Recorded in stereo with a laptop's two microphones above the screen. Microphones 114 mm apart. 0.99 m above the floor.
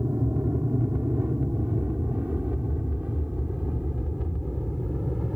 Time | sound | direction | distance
0.0 | an aircraft | 25° right (ahead or behind) | ?